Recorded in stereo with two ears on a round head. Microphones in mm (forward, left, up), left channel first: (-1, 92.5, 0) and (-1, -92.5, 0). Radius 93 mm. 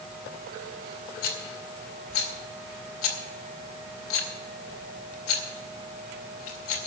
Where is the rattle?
75° left (ahead or behind), 2 m.